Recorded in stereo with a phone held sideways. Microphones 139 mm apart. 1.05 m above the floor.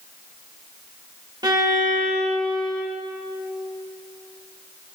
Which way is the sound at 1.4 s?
30° right (ahead or behind).